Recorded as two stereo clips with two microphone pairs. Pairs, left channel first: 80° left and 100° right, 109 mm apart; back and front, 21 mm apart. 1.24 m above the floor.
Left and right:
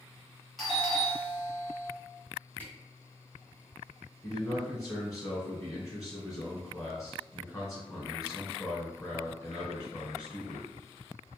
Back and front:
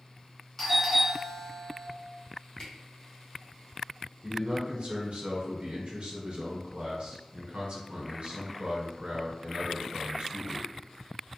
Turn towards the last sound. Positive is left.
turn(degrees=15)